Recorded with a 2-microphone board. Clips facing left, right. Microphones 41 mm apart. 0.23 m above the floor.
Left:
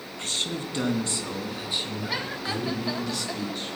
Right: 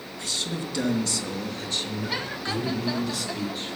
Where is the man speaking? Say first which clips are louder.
Even; 45° left (ahead or behind), 2.5 m; by 3.8 s 5° right (ahead or behind), 4.5 m.